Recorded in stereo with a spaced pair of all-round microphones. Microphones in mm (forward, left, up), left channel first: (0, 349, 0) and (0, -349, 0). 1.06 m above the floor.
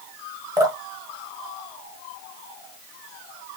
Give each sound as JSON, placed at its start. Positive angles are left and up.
{"t": 0.6, "sound": "dripping", "side_deg": -5, "distance_m": 0.9}